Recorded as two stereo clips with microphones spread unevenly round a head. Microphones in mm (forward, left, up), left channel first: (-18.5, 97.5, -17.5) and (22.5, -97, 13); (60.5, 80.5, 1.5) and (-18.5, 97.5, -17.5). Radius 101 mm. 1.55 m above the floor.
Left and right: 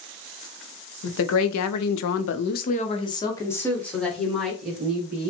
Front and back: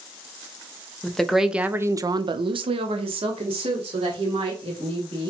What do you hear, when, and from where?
1.0 s a woman speaking: 70° left, 0.8 m; by 5.3 s 165° right, 2.0 m